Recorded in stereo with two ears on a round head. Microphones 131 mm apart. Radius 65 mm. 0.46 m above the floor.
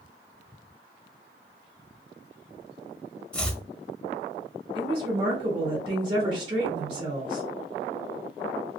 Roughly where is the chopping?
Centre.